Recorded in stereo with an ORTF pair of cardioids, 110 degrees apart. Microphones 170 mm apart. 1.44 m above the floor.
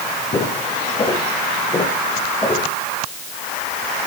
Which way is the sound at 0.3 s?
35° left.